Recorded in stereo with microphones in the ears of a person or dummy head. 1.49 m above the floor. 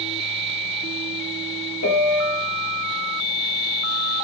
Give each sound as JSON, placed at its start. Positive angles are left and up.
{"t": 1.8, "sound": "a piano", "side_deg": 65, "distance_m": 0.5}